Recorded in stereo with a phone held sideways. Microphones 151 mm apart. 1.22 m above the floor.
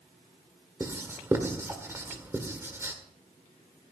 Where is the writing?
15° right (ahead or behind), 1.6 m.